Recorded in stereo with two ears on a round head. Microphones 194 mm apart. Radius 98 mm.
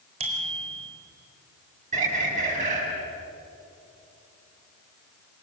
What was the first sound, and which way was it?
A bicycle bell, 30° right (ahead or behind).